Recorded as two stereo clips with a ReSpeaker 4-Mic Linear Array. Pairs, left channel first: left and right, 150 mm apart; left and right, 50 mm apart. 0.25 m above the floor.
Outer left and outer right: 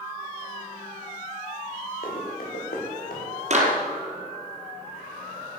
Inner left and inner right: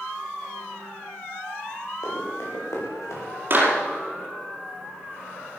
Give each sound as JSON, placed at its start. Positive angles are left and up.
{"t": 2.0, "sound": "running footsteps", "side_deg": 80, "distance_m": 6.0}
{"t": 3.5, "sound": "a clap", "side_deg": -50, "distance_m": 5.0}